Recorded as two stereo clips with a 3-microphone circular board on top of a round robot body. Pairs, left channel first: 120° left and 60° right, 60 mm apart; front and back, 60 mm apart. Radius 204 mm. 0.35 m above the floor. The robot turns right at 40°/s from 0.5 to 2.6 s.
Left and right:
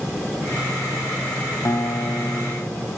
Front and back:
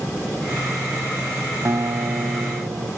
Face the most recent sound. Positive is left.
turn(degrees=-175)